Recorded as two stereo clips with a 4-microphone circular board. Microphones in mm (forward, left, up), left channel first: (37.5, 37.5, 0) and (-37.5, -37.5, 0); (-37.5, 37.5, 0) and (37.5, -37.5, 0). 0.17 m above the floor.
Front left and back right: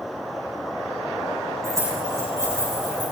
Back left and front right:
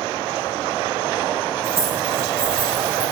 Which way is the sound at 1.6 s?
75° right.